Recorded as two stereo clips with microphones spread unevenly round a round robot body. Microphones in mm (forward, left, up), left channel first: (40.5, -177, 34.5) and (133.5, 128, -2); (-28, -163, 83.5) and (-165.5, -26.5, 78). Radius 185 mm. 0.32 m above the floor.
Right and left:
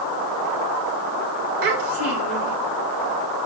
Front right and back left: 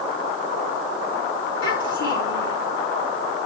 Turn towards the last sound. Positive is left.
turn(degrees=65)